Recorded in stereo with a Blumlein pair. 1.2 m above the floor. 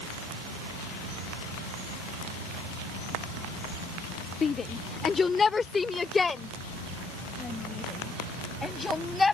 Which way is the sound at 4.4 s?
20° left.